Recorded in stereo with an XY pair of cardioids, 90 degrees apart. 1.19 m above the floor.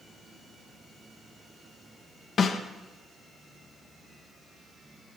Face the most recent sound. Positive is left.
turn(degrees=55)